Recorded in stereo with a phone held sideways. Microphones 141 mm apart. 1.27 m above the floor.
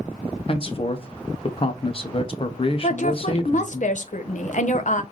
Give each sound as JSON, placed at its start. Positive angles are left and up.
{"t": 0.5, "sound": "a man speaking", "side_deg": 40, "distance_m": 0.6}
{"t": 2.8, "sound": "a woman speaking", "side_deg": 60, "distance_m": 0.7}